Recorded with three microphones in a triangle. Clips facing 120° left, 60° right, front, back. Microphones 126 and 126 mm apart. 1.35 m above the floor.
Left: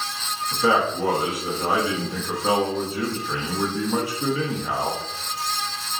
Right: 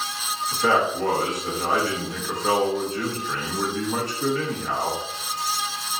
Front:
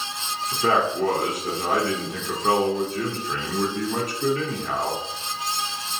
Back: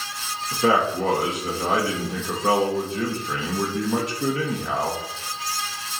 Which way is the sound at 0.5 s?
160° right.